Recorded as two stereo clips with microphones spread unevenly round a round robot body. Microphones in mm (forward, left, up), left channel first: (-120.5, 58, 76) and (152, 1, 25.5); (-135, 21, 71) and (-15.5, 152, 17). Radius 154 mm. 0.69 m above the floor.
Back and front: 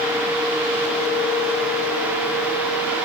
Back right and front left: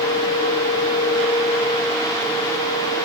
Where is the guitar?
I don't hear a guitar.